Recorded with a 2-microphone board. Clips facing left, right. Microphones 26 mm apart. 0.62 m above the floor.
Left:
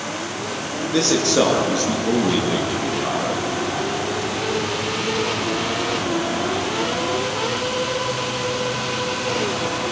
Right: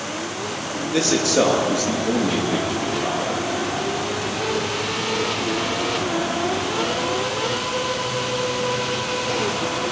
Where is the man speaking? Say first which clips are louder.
Left 1 dB; 30° left (ahead or behind), 9.5 m.